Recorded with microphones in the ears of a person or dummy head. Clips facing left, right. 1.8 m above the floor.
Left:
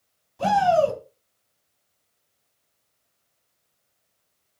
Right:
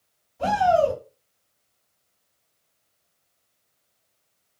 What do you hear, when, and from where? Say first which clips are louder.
0.4 s a shout: even; 80° left, 1.8 m